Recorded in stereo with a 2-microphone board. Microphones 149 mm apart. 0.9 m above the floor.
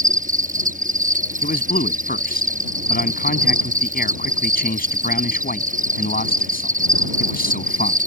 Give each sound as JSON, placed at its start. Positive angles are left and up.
{"t": 0.0, "sound": "an insect", "side_deg": -60}
{"t": 1.4, "sound": "a man speaking", "side_deg": 85}